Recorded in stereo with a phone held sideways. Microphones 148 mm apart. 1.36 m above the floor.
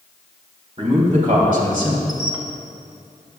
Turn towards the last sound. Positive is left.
turn(degrees=-30)  # may be behind; listen again after turning